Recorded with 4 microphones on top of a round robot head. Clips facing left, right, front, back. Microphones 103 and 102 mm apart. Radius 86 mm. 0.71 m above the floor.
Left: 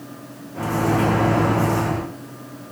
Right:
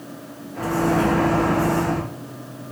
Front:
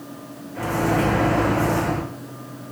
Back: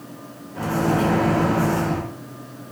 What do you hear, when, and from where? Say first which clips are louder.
0.6 s a microwave: even, even; 135° left, 1.0 m